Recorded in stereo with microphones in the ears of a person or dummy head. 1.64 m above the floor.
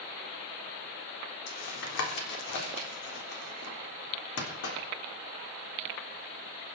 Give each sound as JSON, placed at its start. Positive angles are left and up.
{"t": 1.5, "sound": "tapping", "side_deg": 70, "distance_m": 3.5}